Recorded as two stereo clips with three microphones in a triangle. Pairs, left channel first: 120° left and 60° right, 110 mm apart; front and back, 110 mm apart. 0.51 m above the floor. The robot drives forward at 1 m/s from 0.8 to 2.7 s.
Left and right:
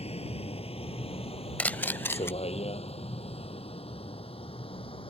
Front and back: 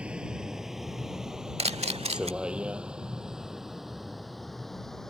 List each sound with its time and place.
0.0 s a vehicle: 100° left; by 5.1 s 85° left
1.6 s a camera shutter: 160° right; by 2.3 s 170° right